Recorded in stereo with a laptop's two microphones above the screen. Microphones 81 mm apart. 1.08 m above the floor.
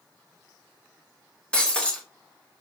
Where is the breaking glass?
15° left (ahead or behind), 0.7 m.